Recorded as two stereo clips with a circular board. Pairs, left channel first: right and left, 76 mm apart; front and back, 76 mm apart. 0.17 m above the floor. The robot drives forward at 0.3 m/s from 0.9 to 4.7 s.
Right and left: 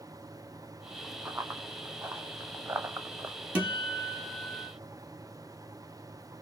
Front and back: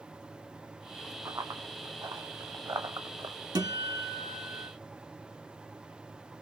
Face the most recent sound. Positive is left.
turn(degrees=165)